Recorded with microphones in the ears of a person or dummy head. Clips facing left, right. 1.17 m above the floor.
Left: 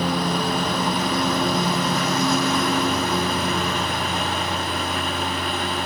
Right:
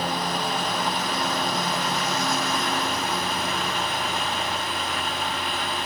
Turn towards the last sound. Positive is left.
turn(degrees=80)